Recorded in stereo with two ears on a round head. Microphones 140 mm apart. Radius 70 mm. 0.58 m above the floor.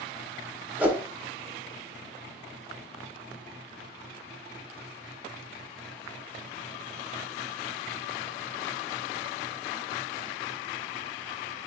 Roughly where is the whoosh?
Centre.